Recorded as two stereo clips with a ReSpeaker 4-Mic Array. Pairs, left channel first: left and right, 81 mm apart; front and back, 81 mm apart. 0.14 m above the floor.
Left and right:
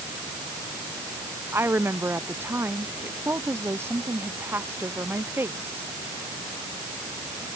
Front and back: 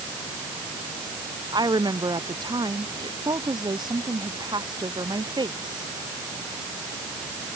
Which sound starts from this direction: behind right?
A woman speaking, at 1.5 s.